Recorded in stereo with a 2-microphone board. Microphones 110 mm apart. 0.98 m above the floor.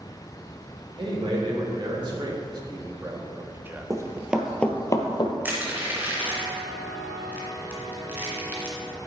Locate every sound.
1.0 s a man speaking: 50° right (ahead or behind), 3 m; by 3.9 s 10° right (ahead or behind), 0.9 m
3.9 s running footsteps: 30° right (ahead or behind), 1.3 m; by 5.3 s 50° left (ahead or behind), 1.4 m
5.5 s crushing: 15° right (ahead or behind), 2.5 m